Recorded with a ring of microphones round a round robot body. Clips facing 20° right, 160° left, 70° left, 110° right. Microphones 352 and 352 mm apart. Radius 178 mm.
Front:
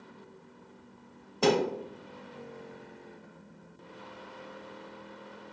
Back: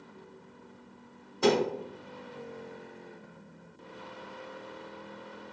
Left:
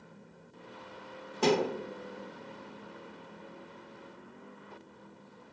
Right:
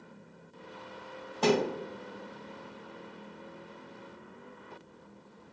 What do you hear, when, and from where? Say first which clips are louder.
1.4 s a thud: even, right 1 dB; 10° left, 1.2 m